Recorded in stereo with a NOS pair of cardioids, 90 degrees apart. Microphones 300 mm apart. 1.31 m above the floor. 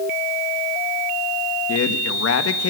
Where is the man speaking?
55° left, 2.5 m.